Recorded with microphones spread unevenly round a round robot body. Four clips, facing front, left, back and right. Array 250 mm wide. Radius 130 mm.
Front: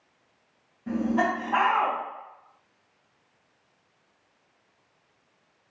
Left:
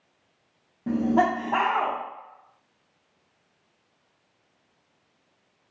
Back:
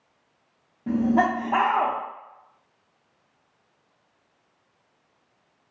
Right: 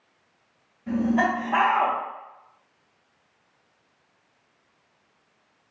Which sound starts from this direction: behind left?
Laughter, at 0.9 s.